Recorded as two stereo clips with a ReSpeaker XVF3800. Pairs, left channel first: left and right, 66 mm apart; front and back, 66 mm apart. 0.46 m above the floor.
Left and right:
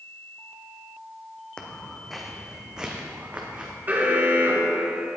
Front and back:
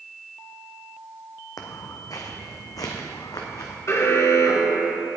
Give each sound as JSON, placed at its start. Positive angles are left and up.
{"t": 1.6, "sound": "footsteps", "azimuth_deg": 15, "distance_m": 1.3}
{"t": 3.9, "sound": "an alarm", "azimuth_deg": -35, "distance_m": 1.4}